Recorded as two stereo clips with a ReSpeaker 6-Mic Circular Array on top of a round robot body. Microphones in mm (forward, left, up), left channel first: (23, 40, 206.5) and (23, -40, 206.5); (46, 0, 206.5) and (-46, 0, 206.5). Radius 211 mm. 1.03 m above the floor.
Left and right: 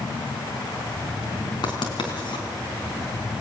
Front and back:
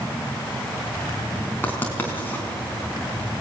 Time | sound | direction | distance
1.6 | writing | 70° left | 3.5 m